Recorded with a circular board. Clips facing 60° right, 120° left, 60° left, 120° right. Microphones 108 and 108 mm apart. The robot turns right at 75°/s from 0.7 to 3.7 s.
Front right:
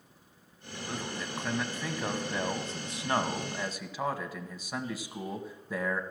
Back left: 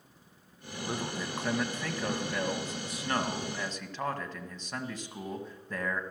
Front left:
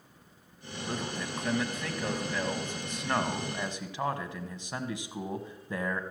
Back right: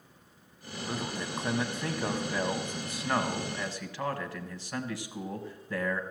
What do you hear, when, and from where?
0.9 s a man speaking: 160° left, 1.0 m; by 6.0 s 15° left, 1.0 m